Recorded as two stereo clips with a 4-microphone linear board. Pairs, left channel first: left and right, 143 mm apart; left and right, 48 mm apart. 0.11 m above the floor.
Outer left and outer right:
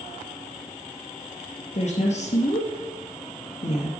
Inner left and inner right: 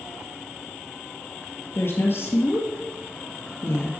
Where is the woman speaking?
55° left (ahead or behind), 2 m.